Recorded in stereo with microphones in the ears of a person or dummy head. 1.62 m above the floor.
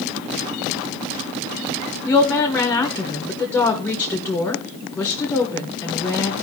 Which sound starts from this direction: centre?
A woman speaking, at 2.0 s.